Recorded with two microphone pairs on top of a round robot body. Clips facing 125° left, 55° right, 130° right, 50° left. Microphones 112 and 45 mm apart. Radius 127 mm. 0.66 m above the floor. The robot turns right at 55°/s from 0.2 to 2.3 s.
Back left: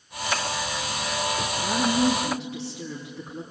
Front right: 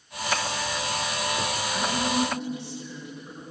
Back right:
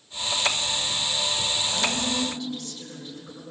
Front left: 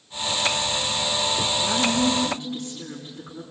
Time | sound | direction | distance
1.6 | a woman speaking | 80° left | 6.5 m